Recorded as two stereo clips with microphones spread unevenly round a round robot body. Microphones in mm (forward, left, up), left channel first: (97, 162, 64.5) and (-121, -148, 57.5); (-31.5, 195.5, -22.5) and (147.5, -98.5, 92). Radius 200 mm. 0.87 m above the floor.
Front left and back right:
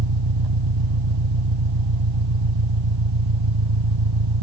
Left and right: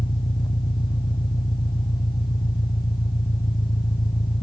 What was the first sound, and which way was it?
An engine running, 160° right.